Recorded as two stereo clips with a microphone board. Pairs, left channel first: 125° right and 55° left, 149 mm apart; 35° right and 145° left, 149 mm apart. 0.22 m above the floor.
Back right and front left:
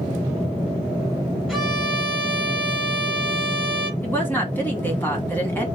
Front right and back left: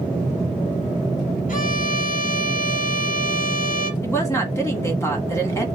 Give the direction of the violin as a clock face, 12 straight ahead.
1 o'clock.